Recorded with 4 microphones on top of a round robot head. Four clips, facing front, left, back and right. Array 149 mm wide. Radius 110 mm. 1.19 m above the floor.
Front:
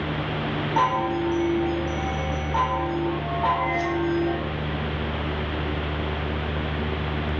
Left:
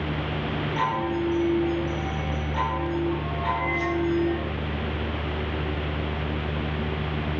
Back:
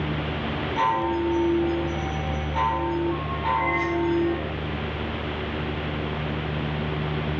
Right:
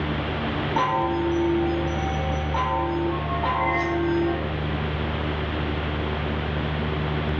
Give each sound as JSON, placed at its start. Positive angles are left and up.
{"t": 0.8, "sound": "a chime", "azimuth_deg": -45, "distance_m": 1.7}